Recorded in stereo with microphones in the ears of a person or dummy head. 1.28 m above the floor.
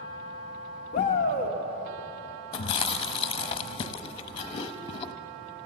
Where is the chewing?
25° left (ahead or behind), 1.0 m.